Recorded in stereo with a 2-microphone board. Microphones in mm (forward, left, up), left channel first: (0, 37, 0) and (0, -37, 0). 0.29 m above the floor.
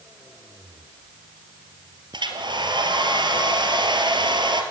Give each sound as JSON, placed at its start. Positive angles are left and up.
{"t": 2.1, "sound": "a hair dryer", "side_deg": -80, "distance_m": 3.5}